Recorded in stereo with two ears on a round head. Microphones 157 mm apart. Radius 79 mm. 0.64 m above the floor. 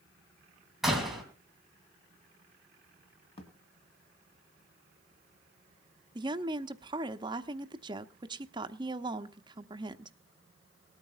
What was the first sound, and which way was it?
A door slam, centre (ahead or behind).